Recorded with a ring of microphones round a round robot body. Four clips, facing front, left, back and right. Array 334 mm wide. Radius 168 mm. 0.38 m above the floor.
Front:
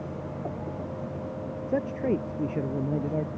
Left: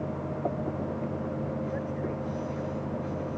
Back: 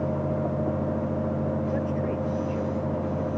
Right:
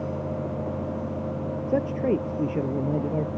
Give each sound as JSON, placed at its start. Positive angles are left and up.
{"t": 1.7, "sound": "a man speaking", "azimuth_deg": -65}